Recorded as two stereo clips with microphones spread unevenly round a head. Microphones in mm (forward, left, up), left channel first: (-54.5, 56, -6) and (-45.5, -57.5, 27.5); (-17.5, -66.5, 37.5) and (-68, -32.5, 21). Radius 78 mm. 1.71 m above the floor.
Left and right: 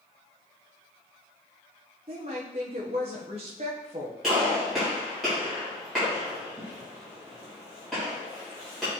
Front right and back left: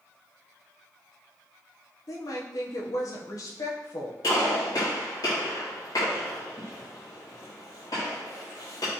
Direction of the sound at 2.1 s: 40° right.